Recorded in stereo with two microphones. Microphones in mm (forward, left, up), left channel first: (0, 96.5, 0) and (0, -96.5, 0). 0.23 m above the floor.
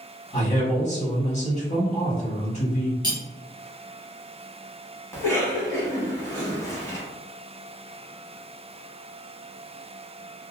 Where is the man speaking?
40° left (ahead or behind), 1.3 m.